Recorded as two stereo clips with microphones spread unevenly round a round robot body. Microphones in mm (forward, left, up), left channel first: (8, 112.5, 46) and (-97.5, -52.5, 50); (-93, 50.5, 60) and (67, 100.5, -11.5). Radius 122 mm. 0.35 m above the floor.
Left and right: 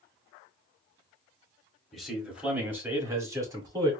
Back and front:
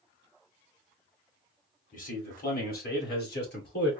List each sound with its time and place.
1.9 s a man speaking: 145° left, 1.7 m; by 3.9 s 165° left, 2.5 m